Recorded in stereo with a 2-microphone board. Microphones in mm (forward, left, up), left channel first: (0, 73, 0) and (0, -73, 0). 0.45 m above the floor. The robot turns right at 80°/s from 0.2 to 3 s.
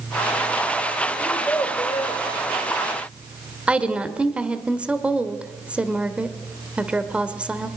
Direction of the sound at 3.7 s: 10° right (ahead or behind).